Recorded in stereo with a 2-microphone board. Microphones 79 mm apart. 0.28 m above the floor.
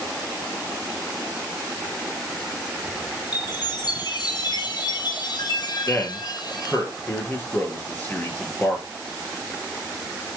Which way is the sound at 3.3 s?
60° left (ahead or behind).